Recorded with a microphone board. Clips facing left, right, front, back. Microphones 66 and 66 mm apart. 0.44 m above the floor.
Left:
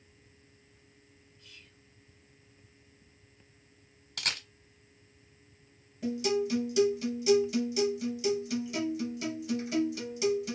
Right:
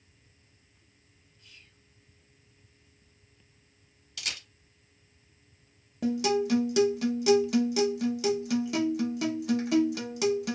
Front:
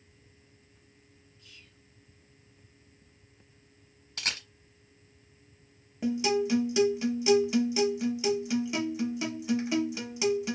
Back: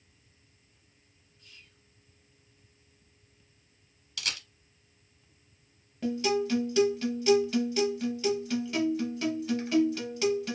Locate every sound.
1.4 s whispering: 175° right, 1.8 m
4.2 s a camera shutter: 50° left, 0.6 m
6.0 s a guitar: 75° right, 0.7 m